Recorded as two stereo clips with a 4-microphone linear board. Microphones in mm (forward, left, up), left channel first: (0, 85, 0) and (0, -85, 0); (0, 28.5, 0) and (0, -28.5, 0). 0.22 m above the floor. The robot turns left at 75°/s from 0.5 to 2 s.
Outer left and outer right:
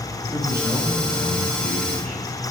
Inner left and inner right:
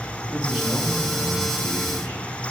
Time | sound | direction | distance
0.3 | a man speaking | 155° right | 3.5 m